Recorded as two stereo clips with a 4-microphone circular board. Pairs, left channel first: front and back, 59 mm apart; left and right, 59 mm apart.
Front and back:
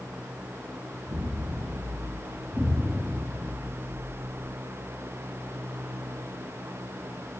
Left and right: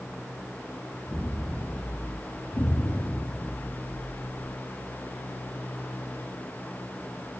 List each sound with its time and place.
1.1 s an explosion: 160° left, 2.5 m
2.5 s an explosion: 85° left, 1.3 m